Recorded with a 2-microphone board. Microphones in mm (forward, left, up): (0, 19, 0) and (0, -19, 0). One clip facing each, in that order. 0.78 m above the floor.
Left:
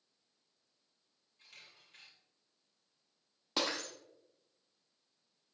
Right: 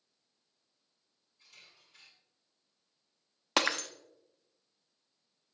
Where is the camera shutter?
50° left (ahead or behind), 4 m.